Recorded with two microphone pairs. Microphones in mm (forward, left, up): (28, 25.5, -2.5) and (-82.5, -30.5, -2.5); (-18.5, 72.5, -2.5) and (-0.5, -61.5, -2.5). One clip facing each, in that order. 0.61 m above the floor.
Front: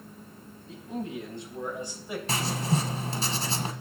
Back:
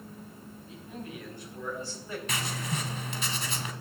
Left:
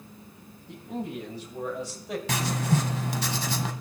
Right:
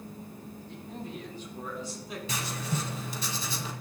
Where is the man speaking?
85° left, 3.5 m; by 2.2 s 105° left, 3 m.